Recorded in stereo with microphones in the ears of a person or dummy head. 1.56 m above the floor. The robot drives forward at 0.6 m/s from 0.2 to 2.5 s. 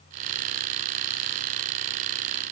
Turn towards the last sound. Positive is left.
No sound to turn to.